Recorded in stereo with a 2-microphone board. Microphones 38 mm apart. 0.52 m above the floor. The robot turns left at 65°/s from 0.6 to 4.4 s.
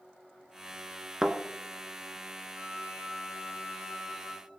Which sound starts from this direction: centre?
A thud, at 1.2 s.